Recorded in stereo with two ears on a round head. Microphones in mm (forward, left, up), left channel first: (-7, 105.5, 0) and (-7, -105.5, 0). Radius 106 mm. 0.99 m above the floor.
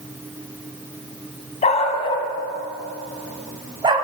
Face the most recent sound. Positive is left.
turn(degrees=-25)  # may be behind; listen again after turning